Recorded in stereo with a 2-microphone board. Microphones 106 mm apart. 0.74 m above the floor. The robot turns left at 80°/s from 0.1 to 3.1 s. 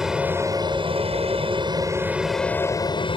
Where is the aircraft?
5° right (ahead or behind); by 3.2 s 50° left (ahead or behind).